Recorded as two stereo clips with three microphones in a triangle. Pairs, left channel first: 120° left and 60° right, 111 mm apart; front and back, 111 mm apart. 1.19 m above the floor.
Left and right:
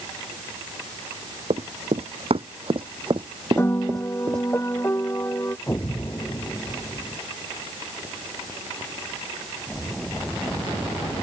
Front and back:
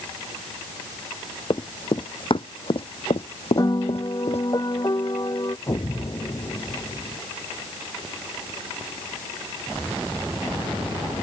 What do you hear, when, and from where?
1.5 s running footsteps: 45° right; by 4.5 s straight ahead
3.6 s a piano: 50° left
5.7 s an explosion: 50° left